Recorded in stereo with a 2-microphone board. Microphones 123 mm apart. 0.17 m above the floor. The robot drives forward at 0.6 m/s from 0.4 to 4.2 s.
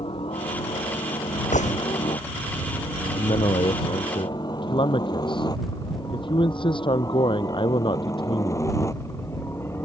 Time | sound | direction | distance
0.0 | a helicopter | 45° left (ahead or behind) | ?
1.5 | a gunshot | 80° left | ?
3.1 | a man speaking | 45° left (ahead or behind) | ?